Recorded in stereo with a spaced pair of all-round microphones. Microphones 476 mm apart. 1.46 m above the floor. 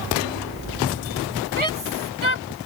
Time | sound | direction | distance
1.6 | a shout | 85° right | ?